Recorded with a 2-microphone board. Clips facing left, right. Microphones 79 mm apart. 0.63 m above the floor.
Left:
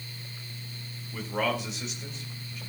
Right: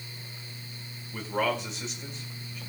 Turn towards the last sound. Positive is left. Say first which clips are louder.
# right 1 dB
turn(degrees=0)  # may be behind; listen again after turning